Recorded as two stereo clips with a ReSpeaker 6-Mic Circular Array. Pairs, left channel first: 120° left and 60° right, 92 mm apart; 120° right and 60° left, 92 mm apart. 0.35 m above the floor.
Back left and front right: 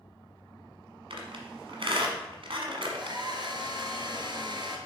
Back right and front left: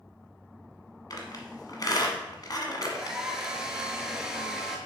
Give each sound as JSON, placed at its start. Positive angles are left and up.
{"t": 1.1, "sound": "a squeak", "azimuth_deg": -75, "distance_m": 1.3}
{"t": 2.8, "sound": "a hair dryer", "azimuth_deg": -25, "distance_m": 1.2}